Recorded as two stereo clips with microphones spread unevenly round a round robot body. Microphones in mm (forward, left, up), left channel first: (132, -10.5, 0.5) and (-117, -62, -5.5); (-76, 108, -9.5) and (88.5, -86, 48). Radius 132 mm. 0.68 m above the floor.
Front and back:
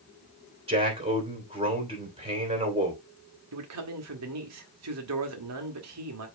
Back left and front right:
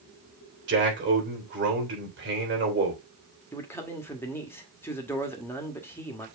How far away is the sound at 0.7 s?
About 3 m.